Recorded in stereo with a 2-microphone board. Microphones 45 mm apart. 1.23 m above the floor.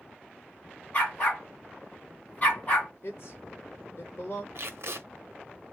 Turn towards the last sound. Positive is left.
turn(degrees=-65)  # may be behind; listen again after turning